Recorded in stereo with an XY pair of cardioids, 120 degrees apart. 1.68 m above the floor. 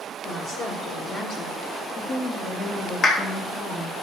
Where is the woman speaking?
70° left, 4.5 m; by 4.0 s 40° left, 2.5 m.